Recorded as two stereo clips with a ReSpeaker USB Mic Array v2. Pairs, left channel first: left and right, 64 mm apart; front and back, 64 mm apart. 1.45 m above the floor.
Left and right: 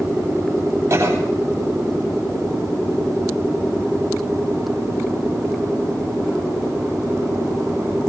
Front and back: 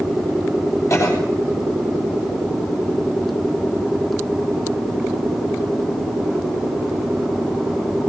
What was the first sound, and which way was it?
A cough, 45° right.